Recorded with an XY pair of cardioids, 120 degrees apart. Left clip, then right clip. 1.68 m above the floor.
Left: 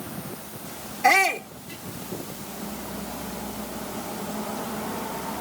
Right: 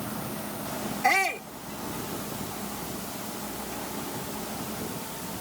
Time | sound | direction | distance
1.0 | a shout | 35° left | ?